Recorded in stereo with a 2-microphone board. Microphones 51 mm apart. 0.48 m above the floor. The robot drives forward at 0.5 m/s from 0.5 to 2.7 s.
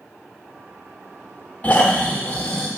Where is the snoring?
25° left (ahead or behind), 1.0 m; by 2.7 s 20° left (ahead or behind), 1.4 m.